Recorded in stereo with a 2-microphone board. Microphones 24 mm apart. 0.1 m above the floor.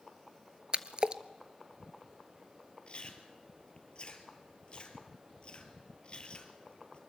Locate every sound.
0.7 s a splash: 45° right (ahead or behind), 0.7 m
2.9 s chewing: 45° left (ahead or behind), 2.5 m